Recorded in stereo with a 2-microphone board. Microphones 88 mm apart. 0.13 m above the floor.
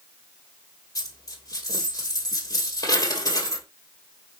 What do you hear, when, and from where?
0.9 s a dropped coin: 40° left (ahead or behind), 1.6 m